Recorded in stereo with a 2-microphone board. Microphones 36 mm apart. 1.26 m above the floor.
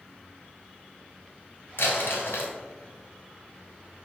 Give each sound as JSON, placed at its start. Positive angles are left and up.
{"t": 1.8, "sound": "crumpling", "side_deg": 80, "distance_m": 3.0}